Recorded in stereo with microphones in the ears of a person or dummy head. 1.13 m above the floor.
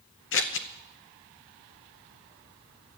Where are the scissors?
55° left (ahead or behind), 0.8 m.